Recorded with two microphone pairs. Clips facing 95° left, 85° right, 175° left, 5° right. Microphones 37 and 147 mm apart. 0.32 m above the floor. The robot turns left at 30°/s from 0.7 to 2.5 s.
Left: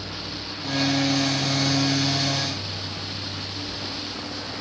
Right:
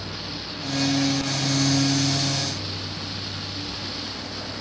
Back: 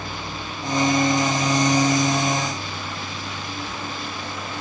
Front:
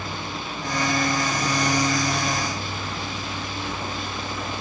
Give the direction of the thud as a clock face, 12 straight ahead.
I don't hear a thud.